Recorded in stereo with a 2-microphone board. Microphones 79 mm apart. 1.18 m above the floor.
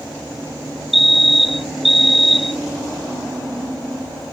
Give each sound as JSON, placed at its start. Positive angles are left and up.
{"t": 0.9, "sound": "a fire alarm", "side_deg": 0}